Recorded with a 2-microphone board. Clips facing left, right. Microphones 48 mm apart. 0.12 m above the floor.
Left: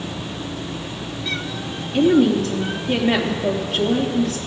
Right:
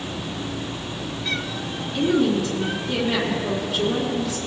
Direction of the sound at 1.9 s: 60° left (ahead or behind).